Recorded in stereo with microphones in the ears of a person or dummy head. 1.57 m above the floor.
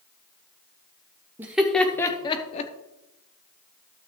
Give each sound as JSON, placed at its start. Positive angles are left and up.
{"t": 1.4, "sound": "laughter", "side_deg": -10, "distance_m": 1.0}